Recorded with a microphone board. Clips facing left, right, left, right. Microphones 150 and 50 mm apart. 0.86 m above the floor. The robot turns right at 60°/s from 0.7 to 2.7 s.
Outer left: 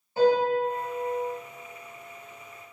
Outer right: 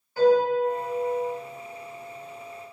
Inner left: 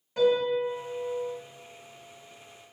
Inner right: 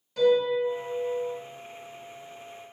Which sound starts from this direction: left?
A piano, at 0.2 s.